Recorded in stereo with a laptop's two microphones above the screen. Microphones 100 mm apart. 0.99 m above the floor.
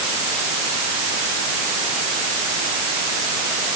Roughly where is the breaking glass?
I don't hear breaking glass.